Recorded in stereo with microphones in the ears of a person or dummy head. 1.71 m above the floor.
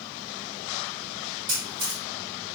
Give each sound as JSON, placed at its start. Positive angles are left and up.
{"t": 1.5, "sound": "a camera shutter", "side_deg": -25, "distance_m": 1.6}